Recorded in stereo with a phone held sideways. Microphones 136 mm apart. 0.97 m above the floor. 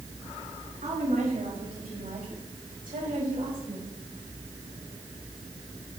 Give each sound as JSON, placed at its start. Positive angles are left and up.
{"t": 0.8, "sound": "a woman speaking", "side_deg": -65, "distance_m": 5.0}